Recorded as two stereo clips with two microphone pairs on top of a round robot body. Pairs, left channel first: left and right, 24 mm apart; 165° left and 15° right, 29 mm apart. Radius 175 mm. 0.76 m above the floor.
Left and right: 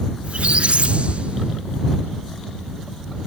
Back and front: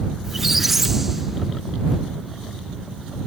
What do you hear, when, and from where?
0.2 s a squeak: 100° right